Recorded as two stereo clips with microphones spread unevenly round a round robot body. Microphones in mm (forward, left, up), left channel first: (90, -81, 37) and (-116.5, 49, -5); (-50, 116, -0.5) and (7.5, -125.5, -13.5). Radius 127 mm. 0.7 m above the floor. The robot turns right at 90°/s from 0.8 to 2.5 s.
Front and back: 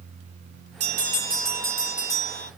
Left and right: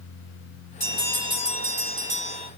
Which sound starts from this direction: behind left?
A bell, at 0.8 s.